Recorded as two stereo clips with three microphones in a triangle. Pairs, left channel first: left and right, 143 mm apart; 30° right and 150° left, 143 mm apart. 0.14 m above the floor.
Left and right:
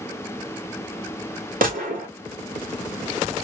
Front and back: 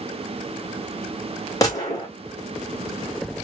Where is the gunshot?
95° right, 2.5 m.